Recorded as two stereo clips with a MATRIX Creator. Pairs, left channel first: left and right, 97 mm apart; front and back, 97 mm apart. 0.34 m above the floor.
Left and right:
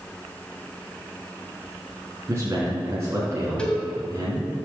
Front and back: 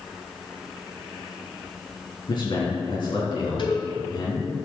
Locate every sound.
2.3 s a man speaking: 30° right, 3.5 m
3.6 s a cowbell: 15° left, 2 m